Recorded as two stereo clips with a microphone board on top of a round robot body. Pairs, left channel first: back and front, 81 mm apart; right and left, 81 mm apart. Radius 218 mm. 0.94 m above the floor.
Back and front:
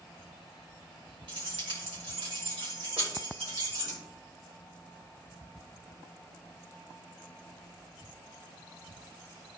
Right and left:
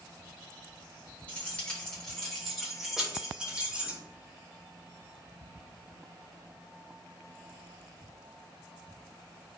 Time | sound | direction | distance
1.3 | keys jangling | 20° right | 2.5 m